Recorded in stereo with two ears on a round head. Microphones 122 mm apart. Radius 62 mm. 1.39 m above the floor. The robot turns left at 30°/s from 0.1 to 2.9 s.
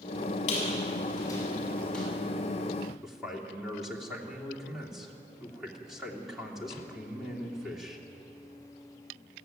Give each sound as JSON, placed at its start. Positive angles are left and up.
{"t": 0.5, "sound": "a squeak", "side_deg": 50, "distance_m": 7.5}
{"t": 3.0, "sound": "a man speaking", "side_deg": 0, "distance_m": 3.0}